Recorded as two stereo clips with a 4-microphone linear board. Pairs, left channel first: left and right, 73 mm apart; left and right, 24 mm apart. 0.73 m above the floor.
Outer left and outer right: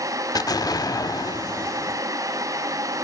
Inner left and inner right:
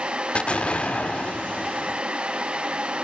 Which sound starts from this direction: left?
An explosion, at 0.3 s.